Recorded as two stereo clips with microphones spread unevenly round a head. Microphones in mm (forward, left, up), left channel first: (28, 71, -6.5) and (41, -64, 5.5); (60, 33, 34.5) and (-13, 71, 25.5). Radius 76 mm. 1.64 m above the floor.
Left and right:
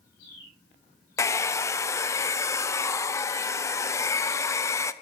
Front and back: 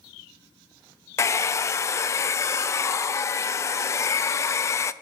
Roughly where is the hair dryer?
Ahead left.